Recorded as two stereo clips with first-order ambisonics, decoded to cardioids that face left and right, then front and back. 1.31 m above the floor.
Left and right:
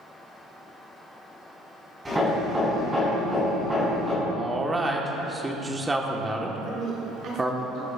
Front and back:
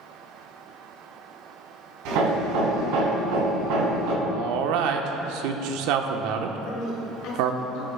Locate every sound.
2.0 s hammering: 175° right, 3.5 m
4.2 s a man speaking: 170° right, 0.9 m
6.6 s a woman speaking: 35° right, 2.5 m